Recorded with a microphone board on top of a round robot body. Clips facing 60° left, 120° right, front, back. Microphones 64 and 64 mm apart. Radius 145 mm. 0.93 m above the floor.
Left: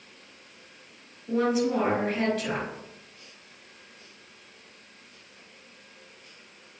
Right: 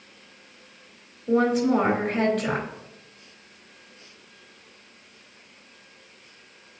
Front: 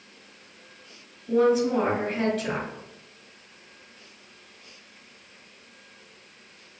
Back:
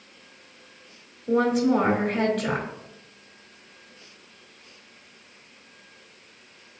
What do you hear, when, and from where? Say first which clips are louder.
1.3 s a woman speaking: right 4 dB, even; 150° right, 3.5 m